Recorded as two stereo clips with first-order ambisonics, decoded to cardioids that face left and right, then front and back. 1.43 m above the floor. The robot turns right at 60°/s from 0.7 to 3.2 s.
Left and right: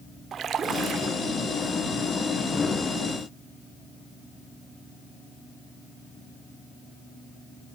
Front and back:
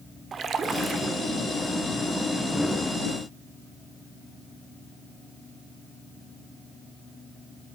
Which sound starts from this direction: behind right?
A splash, at 0.3 s.